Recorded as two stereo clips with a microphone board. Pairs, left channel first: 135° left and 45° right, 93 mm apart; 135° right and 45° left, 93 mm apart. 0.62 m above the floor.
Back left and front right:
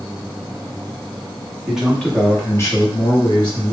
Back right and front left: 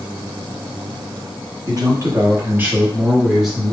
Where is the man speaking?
30° left, 0.9 m; by 3.7 s 135° left, 1.3 m.